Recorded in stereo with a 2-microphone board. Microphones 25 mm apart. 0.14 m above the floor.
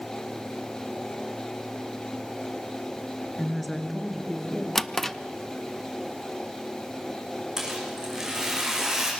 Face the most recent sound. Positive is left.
turn(degrees=-25)  # may be behind; listen again after turning